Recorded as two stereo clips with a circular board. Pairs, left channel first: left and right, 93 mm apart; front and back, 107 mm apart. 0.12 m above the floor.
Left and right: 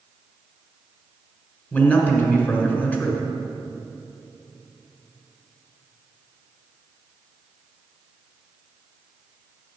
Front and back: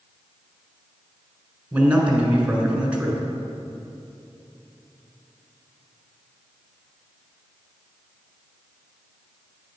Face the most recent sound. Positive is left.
turn(degrees=120)